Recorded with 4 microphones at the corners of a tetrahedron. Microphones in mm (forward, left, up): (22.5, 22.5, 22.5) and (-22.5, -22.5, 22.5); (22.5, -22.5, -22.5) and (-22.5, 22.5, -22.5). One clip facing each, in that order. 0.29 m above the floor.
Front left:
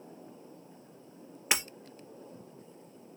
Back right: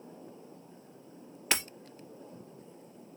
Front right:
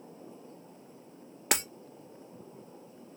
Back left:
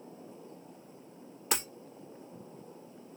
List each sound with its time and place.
1.5 s breaking glass: 30° right, 1.9 m